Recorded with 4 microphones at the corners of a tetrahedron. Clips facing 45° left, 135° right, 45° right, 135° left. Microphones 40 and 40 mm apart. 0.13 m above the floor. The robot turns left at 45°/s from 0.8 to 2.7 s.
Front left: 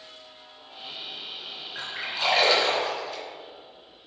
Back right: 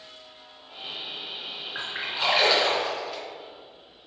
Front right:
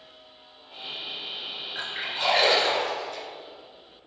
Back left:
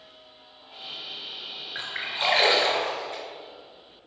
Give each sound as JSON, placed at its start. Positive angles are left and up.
{"t": 1.8, "sound": "a splash", "azimuth_deg": 180, "distance_m": 2.0}